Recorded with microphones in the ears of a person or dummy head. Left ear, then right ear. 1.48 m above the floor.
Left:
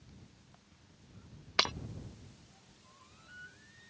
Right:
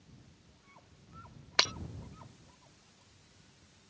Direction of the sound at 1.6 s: 10° right (ahead or behind).